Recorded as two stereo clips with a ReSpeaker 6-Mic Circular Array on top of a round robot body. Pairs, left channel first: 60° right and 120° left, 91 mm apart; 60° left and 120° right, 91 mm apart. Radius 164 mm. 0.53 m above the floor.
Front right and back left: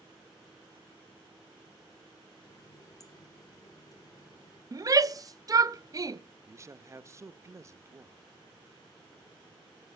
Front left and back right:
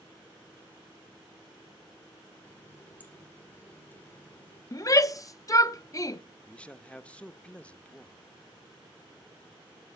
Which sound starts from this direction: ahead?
A running tap, at 2.4 s.